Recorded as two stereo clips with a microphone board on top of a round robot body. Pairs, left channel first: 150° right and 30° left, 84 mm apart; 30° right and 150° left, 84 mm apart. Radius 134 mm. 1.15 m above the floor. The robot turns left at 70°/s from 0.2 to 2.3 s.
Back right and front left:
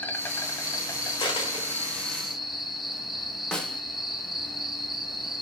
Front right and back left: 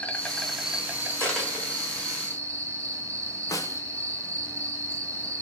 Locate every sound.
0.0 s an insect: 95° right, 1.6 m; by 5.4 s 120° left, 1.6 m
1.2 s a dropped coin: 105° right, 1.4 m; by 2.0 s 165° right, 1.4 m
3.5 s a snare drum: 70° right, 0.9 m